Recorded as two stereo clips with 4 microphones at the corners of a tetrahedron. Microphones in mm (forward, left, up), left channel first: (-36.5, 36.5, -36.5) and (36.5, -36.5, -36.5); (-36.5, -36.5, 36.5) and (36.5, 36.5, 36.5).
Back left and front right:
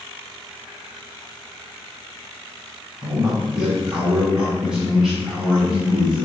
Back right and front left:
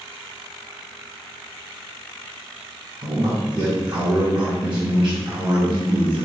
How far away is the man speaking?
About 1.6 m.